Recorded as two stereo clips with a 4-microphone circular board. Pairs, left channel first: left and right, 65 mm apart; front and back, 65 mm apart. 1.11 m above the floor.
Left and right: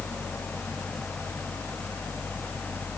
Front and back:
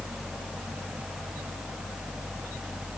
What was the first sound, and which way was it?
Only background noise.